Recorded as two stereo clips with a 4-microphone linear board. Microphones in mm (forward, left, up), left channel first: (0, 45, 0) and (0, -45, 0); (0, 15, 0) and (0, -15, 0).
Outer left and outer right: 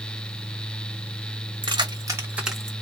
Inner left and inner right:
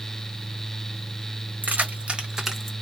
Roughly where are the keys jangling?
Right.